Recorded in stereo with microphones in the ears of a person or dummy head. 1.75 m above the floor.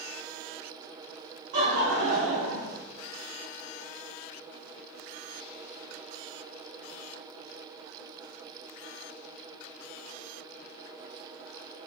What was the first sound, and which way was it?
Laughter, 45° right (ahead or behind).